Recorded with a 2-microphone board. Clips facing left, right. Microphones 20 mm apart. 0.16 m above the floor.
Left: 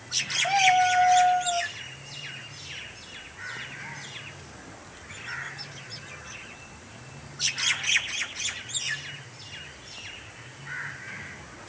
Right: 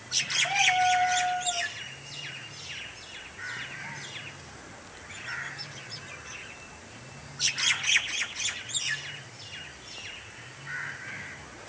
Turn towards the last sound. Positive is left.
turn(degrees=75)  # may be behind; listen again after turning